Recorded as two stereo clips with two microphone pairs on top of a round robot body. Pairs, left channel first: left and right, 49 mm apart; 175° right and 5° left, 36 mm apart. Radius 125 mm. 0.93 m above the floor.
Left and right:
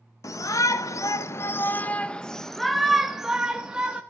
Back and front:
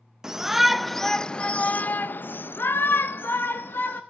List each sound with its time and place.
0.2 s a shout: 85° left, 1.0 m; by 4.0 s 160° right, 1.5 m